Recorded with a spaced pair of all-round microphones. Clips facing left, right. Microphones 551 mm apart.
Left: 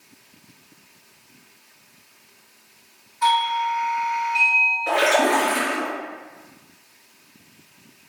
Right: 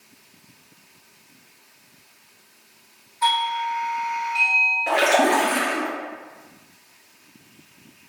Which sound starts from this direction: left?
A doorbell, at 3.2 s.